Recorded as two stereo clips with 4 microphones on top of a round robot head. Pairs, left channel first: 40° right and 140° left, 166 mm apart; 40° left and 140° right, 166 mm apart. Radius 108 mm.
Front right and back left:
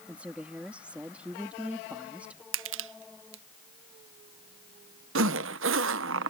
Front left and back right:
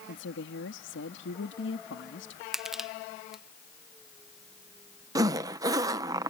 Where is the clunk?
No clunk in this recording.